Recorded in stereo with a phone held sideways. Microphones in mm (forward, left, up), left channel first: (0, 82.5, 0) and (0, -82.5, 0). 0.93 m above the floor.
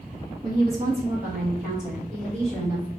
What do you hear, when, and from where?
0.4 s a woman speaking: 25° right (ahead or behind), 0.8 m; by 2.9 s 5° left (ahead or behind), 1.6 m